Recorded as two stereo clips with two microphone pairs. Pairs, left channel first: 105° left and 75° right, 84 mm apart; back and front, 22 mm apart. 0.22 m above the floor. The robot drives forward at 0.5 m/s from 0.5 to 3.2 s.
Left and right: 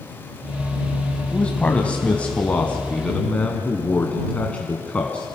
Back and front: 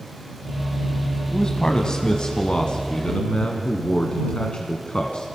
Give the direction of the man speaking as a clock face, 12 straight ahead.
7 o'clock.